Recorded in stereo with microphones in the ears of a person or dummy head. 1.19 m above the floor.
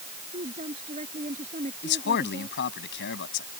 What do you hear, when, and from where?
0.3 s a woman speaking: 35° right (ahead or behind)
1.8 s a man speaking: 60° left (ahead or behind)